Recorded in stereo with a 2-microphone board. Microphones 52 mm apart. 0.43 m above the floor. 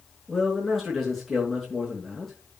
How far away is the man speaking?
About 6 m.